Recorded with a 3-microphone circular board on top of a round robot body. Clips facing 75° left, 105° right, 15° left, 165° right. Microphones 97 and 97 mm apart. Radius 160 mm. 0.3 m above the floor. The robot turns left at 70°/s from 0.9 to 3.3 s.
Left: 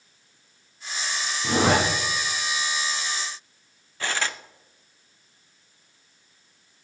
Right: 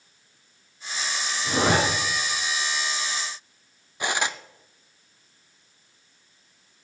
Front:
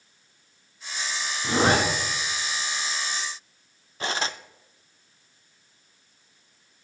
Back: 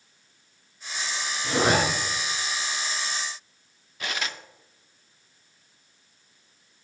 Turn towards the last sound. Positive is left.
turn(degrees=-35)